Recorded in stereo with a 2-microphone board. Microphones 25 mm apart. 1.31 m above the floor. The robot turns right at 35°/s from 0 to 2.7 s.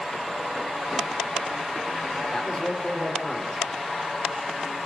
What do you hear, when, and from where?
2.3 s a man speaking: 20° left (ahead or behind), 4 m; by 3.6 s 35° left (ahead or behind), 4 m